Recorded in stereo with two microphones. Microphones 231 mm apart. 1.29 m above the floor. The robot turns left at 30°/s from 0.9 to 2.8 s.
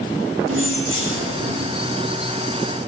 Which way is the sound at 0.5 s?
65° right (ahead or behind).